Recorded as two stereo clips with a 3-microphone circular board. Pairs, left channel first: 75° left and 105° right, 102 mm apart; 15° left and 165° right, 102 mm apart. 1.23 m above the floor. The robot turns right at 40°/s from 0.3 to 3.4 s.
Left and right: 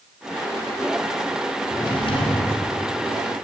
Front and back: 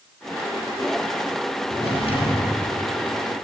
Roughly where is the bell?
No bell in this recording.